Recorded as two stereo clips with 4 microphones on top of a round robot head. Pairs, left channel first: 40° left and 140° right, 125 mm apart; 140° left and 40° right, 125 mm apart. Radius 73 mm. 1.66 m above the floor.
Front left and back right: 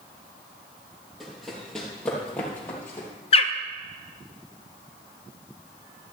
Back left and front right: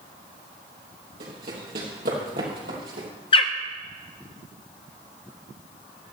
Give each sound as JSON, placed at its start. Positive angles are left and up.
{"t": 1.2, "sound": "running footsteps", "azimuth_deg": -50, "distance_m": 3.0}
{"t": 3.3, "sound": "a bird", "azimuth_deg": 85, "distance_m": 0.5}